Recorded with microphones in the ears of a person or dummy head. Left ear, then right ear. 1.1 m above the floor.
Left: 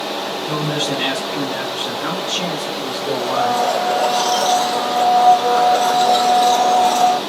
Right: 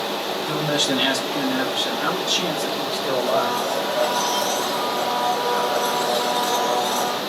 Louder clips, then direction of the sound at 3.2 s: Left 5 dB; 20° left (ahead or behind).